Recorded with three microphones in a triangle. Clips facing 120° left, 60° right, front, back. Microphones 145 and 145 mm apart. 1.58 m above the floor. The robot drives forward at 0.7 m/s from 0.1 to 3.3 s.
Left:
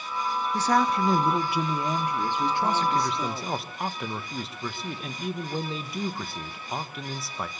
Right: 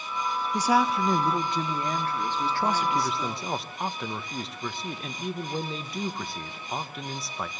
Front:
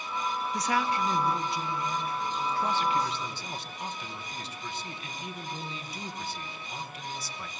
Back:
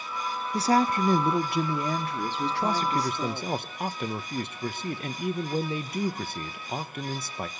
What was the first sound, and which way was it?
A woman speaking, 130° right.